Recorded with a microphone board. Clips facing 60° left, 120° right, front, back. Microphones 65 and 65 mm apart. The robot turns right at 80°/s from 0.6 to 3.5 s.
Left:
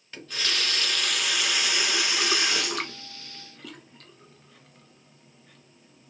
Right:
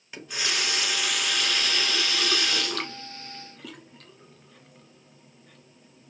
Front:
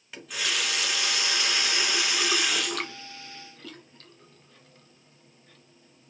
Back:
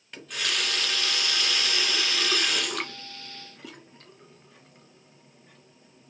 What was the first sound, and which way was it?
A running tap, 80° right.